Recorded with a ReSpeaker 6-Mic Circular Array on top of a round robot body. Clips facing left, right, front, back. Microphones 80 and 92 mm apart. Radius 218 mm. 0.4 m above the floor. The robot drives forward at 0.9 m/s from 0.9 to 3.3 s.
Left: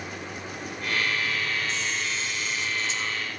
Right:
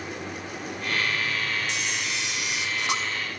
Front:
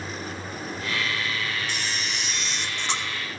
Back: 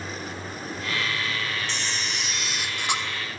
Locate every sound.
1.7 s a camera shutter: 80° right, 3.5 m; by 3.0 s 105° right, 3.5 m